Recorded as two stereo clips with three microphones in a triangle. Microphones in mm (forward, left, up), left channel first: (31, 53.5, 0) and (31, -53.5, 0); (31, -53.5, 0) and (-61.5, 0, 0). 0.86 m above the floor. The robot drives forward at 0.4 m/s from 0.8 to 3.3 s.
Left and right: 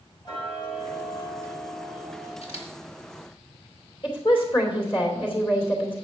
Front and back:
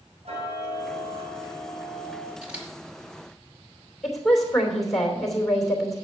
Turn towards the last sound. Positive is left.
turn(degrees=60)